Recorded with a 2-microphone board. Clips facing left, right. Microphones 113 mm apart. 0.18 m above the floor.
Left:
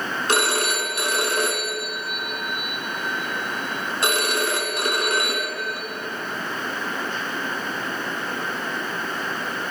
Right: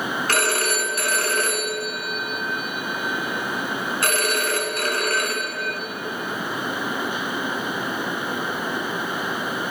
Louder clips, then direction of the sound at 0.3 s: Left 2 dB; 20° left (ahead or behind).